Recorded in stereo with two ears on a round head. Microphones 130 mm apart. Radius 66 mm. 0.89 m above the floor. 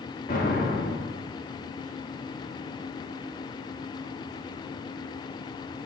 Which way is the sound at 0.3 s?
60° left (ahead or behind).